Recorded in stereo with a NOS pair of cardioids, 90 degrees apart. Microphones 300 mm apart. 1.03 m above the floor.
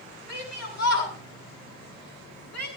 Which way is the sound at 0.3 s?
60° left.